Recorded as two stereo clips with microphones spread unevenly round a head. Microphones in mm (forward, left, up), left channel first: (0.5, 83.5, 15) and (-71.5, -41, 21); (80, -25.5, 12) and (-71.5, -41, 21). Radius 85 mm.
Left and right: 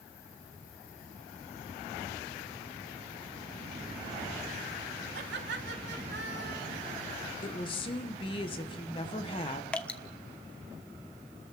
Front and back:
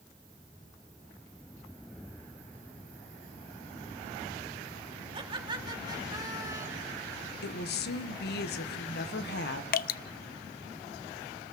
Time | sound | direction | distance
5.1 | laughter | 115° right | 3.5 m
7.4 | a woman speaking | straight ahead | 1.3 m
9.7 | dripping | 25° right | 0.5 m